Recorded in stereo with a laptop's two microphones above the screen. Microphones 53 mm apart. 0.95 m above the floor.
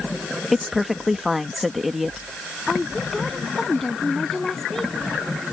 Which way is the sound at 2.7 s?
5° left (ahead or behind).